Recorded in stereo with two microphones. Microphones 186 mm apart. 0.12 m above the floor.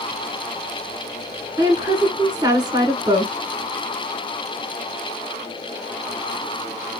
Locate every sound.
1.6 s a woman speaking: 25° right (ahead or behind), 1.2 m